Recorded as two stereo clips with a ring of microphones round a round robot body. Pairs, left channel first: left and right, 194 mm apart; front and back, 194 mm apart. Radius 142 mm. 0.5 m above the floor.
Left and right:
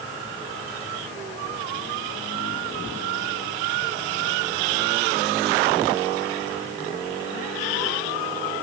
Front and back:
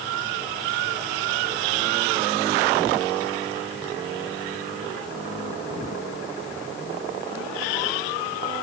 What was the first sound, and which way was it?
Only background noise.